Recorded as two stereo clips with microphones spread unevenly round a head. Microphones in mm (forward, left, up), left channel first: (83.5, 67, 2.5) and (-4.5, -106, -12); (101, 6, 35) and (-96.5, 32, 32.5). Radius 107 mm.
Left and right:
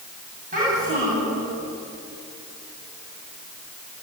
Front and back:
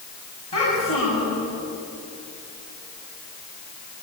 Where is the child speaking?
70° right, 9.5 m.